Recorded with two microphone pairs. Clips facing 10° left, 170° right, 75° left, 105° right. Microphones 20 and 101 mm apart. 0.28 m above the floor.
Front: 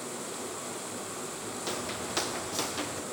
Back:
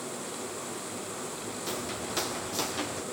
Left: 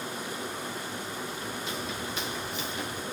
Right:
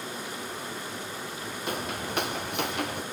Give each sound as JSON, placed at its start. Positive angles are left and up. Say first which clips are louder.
{"t": 1.7, "sound": "footsteps", "louder": "even, right 2 dB", "azimuth_deg": -70, "distance_m": 2.5}